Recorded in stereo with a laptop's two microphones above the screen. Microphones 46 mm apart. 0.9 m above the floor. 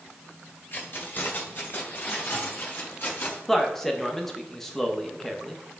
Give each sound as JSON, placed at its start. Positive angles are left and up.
{"t": 0.7, "sound": "keys jangling", "side_deg": 50, "distance_m": 2.0}
{"t": 3.5, "sound": "a man speaking", "side_deg": 10, "distance_m": 1.0}